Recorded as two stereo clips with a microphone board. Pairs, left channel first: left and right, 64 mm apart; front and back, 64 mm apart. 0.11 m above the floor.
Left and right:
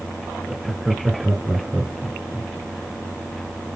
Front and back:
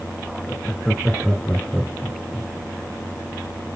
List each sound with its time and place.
0.5 s laughter: 10° right, 1.2 m; by 2.5 s 135° right, 1.5 m